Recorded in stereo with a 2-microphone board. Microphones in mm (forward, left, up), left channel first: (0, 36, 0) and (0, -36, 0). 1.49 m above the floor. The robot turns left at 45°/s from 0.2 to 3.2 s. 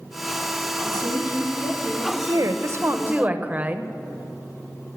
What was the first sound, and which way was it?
A woman speaking, 110° left.